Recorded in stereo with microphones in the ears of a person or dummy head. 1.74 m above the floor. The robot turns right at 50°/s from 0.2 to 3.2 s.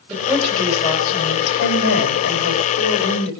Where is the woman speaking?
15° right, 7 m; by 3.3 s 135° left, 7 m.